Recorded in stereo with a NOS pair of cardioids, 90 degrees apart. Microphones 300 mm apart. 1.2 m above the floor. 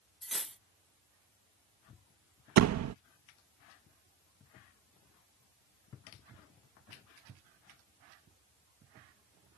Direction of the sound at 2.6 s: 60° right.